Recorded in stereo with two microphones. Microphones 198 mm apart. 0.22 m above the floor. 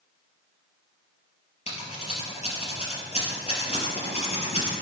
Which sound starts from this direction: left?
Scissors, at 1.7 s.